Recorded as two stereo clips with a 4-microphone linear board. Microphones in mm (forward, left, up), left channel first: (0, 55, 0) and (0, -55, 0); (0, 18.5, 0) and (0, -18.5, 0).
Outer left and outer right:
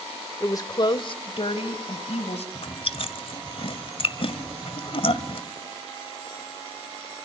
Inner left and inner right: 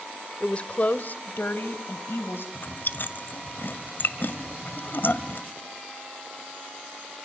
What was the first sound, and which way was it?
A woman speaking, 30° left (ahead or behind).